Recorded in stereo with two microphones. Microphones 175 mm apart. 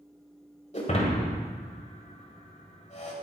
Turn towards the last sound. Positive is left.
turn(degrees=45)  # may be behind; listen again after turning